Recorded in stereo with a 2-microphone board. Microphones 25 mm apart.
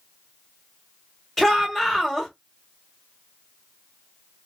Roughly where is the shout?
Centre.